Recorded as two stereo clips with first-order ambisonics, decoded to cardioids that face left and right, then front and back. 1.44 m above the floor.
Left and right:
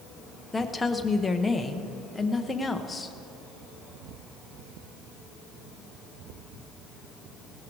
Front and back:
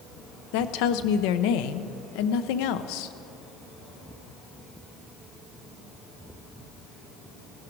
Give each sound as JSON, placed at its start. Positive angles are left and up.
{"t": 0.5, "sound": "a woman speaking", "azimuth_deg": 10, "distance_m": 0.7}